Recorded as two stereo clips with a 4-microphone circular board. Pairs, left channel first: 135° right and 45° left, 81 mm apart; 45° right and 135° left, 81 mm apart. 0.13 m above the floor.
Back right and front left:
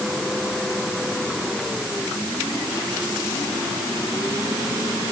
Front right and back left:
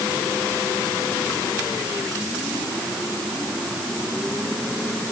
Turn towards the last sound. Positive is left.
No sound to turn to.